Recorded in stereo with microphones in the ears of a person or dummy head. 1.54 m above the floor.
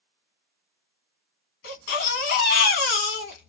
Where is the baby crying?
40° left (ahead or behind), 1.0 m.